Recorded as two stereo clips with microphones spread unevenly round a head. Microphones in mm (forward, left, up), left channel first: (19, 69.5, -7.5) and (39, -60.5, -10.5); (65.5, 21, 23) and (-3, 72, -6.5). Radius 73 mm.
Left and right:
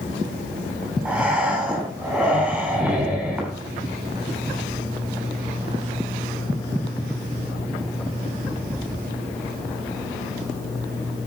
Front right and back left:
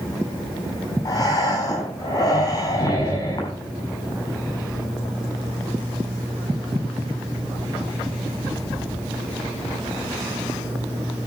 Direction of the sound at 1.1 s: 5° left.